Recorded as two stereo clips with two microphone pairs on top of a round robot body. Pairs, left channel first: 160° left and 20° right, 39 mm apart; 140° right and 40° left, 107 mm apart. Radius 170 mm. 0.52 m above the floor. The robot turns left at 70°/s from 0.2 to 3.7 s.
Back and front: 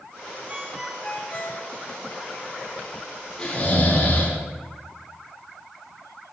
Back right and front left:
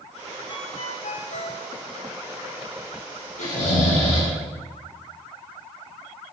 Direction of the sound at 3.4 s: 125° right.